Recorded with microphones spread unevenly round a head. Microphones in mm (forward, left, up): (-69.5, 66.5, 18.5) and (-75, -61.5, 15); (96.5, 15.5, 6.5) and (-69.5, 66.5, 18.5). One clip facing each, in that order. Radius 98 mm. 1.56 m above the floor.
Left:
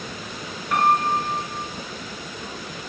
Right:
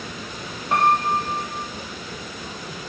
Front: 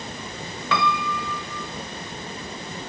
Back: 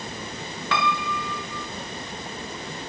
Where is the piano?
20° right, 0.8 m.